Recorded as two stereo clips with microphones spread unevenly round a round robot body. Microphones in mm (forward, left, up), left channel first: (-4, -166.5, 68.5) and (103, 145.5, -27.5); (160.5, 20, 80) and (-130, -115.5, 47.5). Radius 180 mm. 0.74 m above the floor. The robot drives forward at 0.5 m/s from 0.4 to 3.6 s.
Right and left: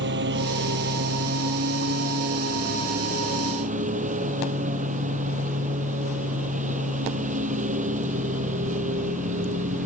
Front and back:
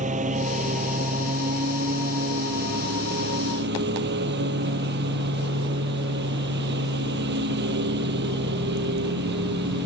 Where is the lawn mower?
135° left; by 9.9 s 145° left.